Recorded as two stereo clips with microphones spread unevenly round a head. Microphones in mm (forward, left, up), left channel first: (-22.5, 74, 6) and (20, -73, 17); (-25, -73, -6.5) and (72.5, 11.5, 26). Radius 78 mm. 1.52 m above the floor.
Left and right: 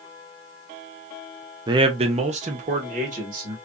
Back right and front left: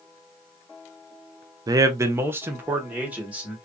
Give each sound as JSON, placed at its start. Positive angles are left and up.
{"t": 1.7, "sound": "a man speaking", "azimuth_deg": -15, "distance_m": 0.5}